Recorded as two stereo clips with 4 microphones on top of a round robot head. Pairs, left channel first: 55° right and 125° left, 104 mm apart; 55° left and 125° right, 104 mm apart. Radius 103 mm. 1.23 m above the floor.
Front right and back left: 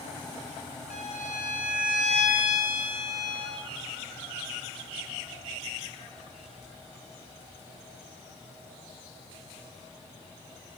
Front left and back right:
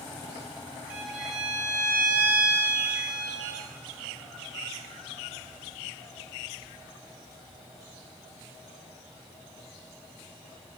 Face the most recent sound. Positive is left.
turn(degrees=-55)